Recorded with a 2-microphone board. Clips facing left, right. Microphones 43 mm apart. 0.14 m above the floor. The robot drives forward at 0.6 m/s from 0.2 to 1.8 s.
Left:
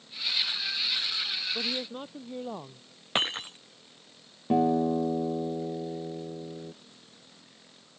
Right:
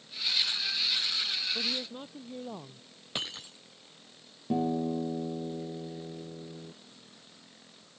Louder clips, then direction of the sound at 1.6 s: Left 2 dB; 20° left (ahead or behind).